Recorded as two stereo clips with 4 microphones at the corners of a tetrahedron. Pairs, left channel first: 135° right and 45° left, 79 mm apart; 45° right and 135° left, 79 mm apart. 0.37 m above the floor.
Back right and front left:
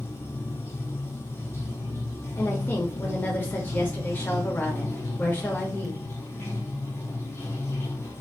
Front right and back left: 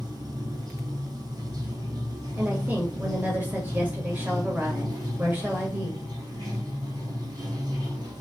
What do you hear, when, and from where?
0.0 s running water: 165° left, 1.1 m
2.4 s a woman speaking: 175° right, 1.3 m